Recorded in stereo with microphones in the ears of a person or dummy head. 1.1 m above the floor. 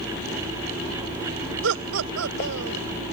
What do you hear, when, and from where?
1.6 s laughter: 75° right (ahead or behind); by 2.8 s 85° right